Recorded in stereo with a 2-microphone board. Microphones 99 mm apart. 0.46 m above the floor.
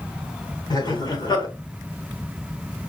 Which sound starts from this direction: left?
Laughter, at 0.7 s.